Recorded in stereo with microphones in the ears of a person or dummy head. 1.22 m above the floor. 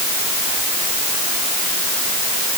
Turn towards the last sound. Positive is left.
No sound to turn to.